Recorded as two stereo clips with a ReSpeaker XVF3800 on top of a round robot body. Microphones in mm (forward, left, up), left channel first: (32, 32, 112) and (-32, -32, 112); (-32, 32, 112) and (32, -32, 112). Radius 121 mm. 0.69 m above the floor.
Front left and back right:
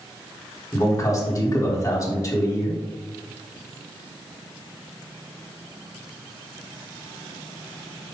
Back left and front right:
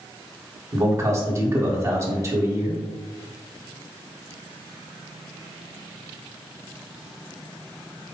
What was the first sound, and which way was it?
A man speaking, 5° left.